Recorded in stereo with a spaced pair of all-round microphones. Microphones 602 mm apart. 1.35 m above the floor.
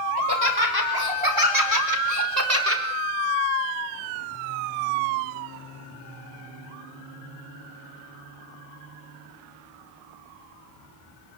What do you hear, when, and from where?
0.2 s laughter: 40° right (ahead or behind), 6.5 m; by 2.8 s 20° right (ahead or behind), 4 m